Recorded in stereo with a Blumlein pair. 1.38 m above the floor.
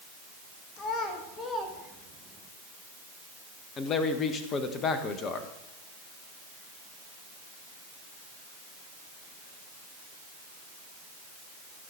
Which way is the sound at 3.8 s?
25° left.